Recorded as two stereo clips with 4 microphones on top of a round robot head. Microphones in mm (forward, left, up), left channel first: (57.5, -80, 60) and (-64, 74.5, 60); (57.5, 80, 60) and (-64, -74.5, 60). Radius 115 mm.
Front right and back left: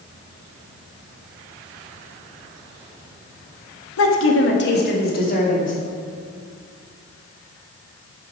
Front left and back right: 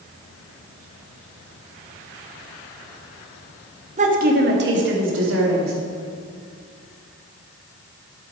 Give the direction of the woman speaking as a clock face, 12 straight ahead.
2 o'clock.